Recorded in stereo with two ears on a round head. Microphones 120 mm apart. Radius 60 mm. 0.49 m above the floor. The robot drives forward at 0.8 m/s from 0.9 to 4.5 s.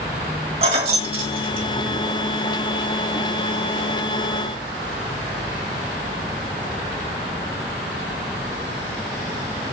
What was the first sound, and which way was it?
Keys jangling, 50° right (ahead or behind).